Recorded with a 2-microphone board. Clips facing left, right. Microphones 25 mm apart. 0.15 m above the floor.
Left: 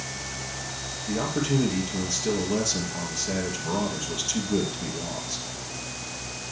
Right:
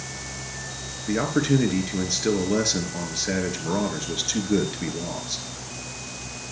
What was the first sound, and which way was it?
A man speaking, 50° right (ahead or behind).